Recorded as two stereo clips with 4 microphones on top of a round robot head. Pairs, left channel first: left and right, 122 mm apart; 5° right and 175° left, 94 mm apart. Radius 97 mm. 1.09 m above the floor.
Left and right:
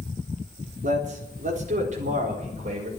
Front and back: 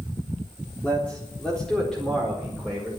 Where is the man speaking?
85° right, 3.5 m; by 2.9 s 95° right, 5 m.